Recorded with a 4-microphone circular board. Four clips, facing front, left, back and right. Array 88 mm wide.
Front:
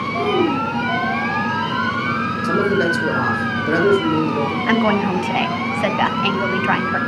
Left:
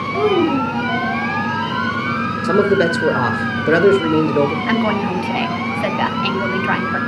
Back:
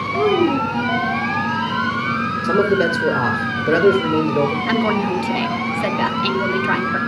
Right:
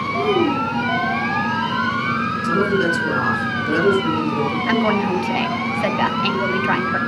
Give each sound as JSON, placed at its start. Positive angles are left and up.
{"t": 0.1, "sound": "a child speaking", "azimuth_deg": 115, "distance_m": 1.3}
{"t": 2.4, "sound": "a man speaking", "azimuth_deg": 85, "distance_m": 4.0}
{"t": 4.7, "sound": "a woman speaking", "azimuth_deg": 5, "distance_m": 1.0}